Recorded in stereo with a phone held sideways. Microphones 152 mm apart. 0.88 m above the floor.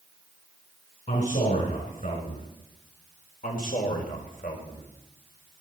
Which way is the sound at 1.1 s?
65° left (ahead or behind).